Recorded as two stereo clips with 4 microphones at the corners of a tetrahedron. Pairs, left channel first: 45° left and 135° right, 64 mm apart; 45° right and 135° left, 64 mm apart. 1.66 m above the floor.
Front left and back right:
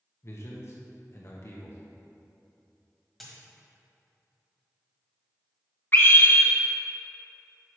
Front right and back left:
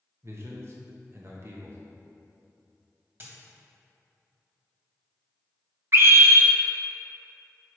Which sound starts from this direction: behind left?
A dropped coin, at 3.2 s.